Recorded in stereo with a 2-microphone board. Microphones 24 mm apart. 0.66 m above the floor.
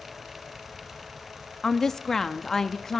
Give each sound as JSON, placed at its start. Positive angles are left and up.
{"t": 1.6, "sound": "a woman speaking", "side_deg": 15, "distance_m": 0.6}